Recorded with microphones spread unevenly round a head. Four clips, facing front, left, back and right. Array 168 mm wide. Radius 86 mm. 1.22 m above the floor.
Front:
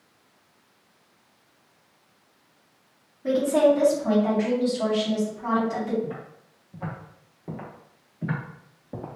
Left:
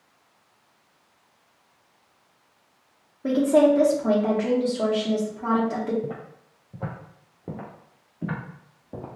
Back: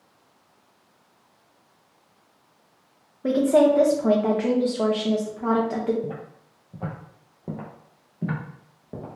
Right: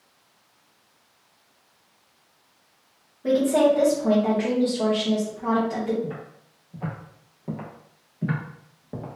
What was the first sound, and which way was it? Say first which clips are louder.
A woman speaking: left 1 dB, back 2 dB; 165° left.